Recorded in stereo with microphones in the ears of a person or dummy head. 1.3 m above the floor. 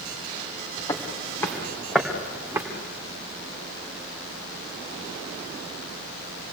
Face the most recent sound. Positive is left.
turn(degrees=-20)  # may be behind; listen again after turning